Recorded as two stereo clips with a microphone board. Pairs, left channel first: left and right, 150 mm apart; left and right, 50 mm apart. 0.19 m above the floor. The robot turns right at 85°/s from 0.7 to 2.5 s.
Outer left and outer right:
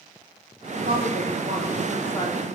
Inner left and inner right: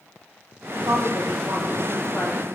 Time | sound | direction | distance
0.9 | a woman speaking | 90° right | 9.5 m